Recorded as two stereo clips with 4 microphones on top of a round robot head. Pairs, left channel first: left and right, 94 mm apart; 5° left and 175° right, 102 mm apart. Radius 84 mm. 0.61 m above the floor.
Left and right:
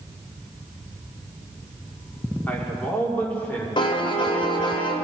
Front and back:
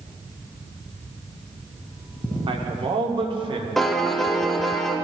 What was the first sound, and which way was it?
A man speaking, 160° left.